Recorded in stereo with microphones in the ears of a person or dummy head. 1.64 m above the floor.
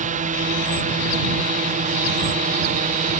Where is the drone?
35° right (ahead or behind).